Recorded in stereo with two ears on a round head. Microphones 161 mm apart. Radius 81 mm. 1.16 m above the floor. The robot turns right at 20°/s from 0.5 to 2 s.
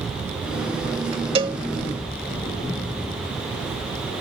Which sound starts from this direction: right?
A cowbell, at 1.4 s.